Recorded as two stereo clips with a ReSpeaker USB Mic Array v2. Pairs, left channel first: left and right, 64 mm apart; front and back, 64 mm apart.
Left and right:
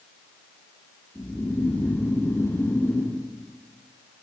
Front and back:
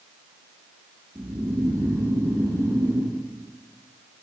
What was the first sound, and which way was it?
Snoring, 150° left.